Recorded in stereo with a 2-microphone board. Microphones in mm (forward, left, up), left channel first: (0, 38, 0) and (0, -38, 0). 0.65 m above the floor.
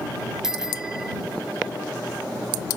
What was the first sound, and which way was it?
A bicycle bell, 5° right (ahead or behind).